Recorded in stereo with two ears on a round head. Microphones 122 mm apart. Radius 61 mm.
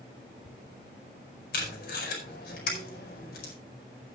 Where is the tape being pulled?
85° left, 4.5 m.